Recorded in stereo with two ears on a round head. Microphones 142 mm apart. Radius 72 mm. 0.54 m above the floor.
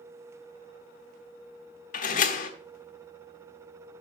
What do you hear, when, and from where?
1.9 s a door slam: 55° left (ahead or behind), 1.3 m